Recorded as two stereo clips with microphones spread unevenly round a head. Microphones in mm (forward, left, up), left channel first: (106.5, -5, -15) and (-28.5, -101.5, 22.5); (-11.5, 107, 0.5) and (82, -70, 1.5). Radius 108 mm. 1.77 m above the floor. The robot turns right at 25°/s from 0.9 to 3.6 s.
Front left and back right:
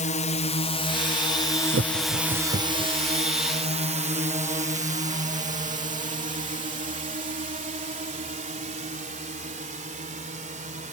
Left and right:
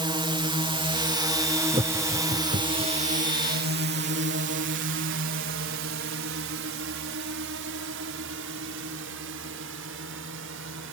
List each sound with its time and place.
0.0 s a drone: straight ahead; by 10.9 s 100° right
1.7 s laughter: 130° right; by 2.9 s 100° right